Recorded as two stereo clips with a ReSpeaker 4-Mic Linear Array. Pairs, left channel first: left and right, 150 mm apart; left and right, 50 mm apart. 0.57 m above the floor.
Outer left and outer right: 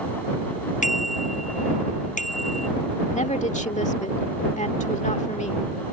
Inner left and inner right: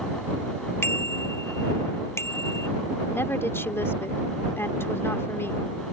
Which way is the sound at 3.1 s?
55° left (ahead or behind).